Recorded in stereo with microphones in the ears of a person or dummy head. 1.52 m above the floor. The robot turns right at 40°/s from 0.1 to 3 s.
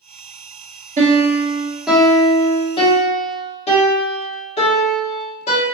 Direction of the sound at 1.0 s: 40° right.